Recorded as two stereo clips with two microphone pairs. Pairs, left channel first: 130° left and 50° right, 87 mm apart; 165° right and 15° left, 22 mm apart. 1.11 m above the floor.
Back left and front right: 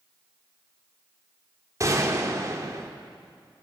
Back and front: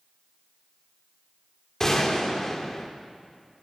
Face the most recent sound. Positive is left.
turn(degrees=-100)